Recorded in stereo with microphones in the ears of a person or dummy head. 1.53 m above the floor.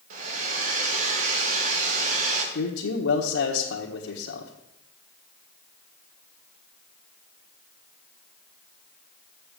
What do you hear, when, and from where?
0.1 s a hair dryer: 45° right (ahead or behind), 2 m
2.5 s a man speaking: 70° left (ahead or behind), 1.4 m